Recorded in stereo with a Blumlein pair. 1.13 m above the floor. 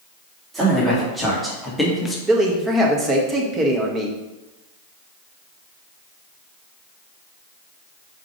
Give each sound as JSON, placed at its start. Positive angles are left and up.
{"t": 0.5, "sound": "a man speaking", "azimuth_deg": -15, "distance_m": 2.5}
{"t": 2.3, "sound": "a man speaking", "azimuth_deg": -20, "distance_m": 1.4}